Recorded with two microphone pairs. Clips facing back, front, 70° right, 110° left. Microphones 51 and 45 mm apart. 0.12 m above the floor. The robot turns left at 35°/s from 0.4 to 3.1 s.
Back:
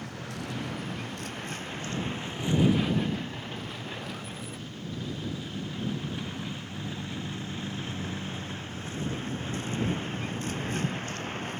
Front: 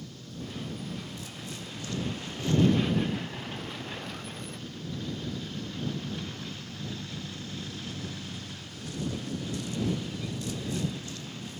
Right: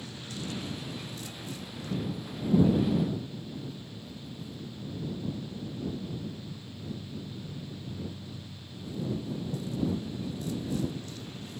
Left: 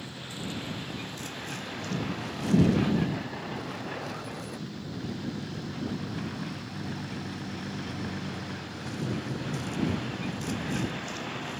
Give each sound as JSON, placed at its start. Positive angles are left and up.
{"t": 0.0, "sound": "a vehicle", "azimuth_deg": 175}